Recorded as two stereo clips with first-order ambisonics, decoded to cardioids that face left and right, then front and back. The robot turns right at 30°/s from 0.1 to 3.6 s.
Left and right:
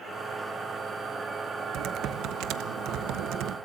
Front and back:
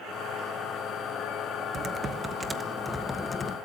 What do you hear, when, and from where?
1.7 s typing on a keyboard: 120° right, 0.9 m; by 3.6 s 65° right, 0.9 m